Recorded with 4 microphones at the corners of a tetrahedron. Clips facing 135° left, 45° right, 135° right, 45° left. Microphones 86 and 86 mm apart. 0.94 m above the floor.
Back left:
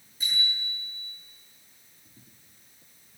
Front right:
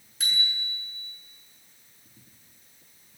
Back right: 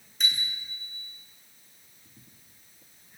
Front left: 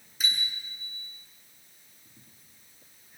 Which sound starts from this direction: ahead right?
A bicycle bell, at 0.2 s.